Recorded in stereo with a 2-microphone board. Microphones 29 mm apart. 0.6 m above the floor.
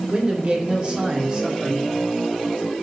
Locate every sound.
0.1 s a man speaking: 40° right (ahead or behind), 2.5 m; by 1.9 s 20° right (ahead or behind), 1.6 m